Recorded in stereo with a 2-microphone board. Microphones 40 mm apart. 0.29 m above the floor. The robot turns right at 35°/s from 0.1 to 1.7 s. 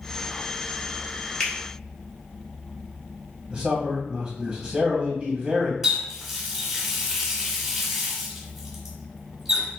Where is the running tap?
5° right (ahead or behind), 1.2 m.